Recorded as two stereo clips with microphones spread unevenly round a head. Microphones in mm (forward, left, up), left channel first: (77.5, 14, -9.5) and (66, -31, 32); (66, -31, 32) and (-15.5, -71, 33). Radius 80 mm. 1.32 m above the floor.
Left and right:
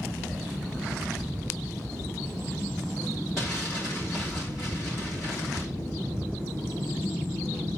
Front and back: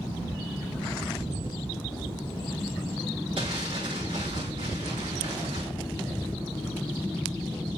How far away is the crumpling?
About 3.5 m.